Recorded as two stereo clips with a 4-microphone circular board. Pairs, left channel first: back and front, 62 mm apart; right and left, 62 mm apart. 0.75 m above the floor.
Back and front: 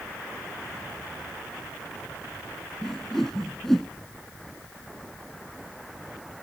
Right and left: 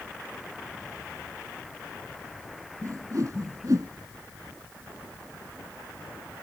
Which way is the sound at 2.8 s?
100° left.